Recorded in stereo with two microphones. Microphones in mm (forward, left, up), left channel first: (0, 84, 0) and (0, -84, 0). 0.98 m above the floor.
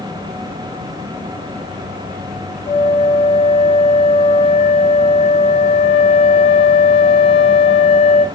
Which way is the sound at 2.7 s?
40° left (ahead or behind).